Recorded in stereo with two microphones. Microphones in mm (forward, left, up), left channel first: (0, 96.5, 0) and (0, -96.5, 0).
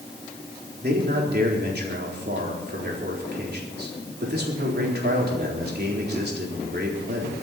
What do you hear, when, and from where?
0.8 s a man speaking: 60° right (ahead or behind), 4 m